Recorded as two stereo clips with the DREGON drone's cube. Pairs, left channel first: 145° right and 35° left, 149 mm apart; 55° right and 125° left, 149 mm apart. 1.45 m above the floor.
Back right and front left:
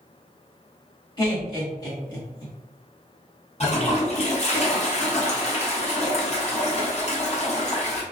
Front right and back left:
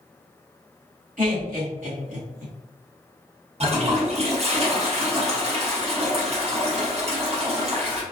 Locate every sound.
1.2 s laughter: 155° left, 1.2 m
3.6 s a toilet flushing: 170° left, 0.7 m